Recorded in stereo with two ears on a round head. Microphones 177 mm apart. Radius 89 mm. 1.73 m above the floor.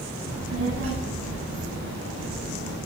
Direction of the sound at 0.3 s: 85° right.